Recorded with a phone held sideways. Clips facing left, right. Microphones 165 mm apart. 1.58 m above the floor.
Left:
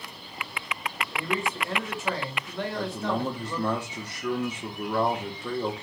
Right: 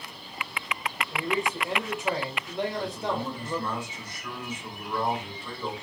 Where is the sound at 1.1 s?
20° right (ahead or behind), 1.8 m.